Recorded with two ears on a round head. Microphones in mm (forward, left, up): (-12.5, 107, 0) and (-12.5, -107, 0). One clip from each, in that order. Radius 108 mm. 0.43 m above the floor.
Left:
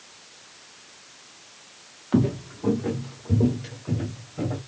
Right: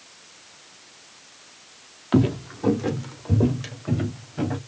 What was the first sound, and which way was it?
Footsteps, 30° right (ahead or behind).